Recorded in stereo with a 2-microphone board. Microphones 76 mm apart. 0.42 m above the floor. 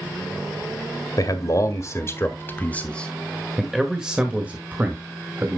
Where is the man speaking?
50° left (ahead or behind), 1.7 m; by 5.6 s 30° right (ahead or behind), 2 m.